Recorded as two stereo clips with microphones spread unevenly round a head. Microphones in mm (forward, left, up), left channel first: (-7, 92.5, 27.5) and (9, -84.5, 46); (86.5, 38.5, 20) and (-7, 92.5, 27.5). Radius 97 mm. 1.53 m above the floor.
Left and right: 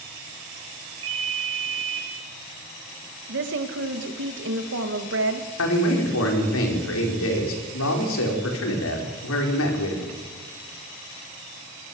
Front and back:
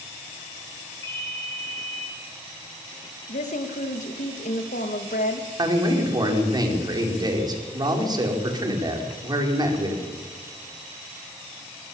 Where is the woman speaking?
60° right, 2.5 m.